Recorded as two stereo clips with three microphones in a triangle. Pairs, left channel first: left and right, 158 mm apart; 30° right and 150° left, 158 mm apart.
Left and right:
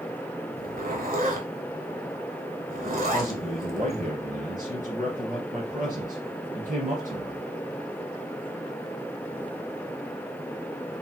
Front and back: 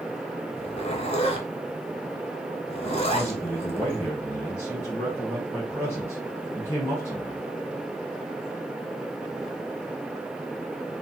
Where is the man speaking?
100° right, 1.9 m.